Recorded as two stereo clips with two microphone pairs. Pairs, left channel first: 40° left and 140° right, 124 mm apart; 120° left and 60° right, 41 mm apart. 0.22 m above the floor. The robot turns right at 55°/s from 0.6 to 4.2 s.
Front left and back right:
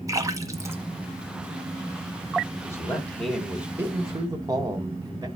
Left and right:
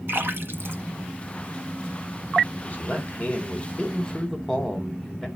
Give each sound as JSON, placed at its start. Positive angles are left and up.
{"t": 0.1, "sound": "a splash", "azimuth_deg": -80, "distance_m": 1.4}
{"t": 2.6, "sound": "a man speaking", "azimuth_deg": 90, "distance_m": 2.0}